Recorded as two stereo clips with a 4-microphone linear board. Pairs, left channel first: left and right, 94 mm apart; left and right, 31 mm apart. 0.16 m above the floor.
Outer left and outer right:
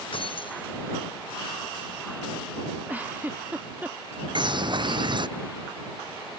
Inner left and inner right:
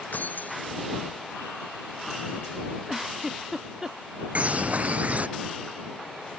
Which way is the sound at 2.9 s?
15° right (ahead or behind).